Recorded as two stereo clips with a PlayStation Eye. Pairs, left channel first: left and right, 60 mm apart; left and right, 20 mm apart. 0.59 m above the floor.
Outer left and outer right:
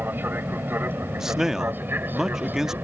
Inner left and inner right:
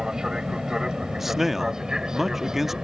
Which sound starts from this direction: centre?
A man speaking, at 1.2 s.